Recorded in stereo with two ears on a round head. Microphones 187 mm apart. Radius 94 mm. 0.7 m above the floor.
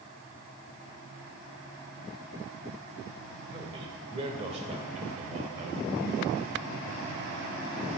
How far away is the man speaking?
About 1.7 m.